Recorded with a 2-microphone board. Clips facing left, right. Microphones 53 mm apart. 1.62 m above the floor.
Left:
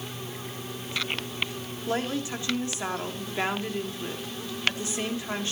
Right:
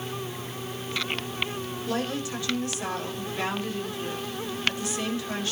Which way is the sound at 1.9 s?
25° left (ahead or behind).